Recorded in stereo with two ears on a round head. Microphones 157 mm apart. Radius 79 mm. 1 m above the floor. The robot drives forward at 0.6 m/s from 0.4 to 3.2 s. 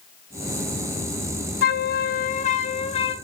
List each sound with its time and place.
1.6 s a flute: 60° left (ahead or behind), 0.8 m; by 3.1 s 30° left (ahead or behind), 1.3 m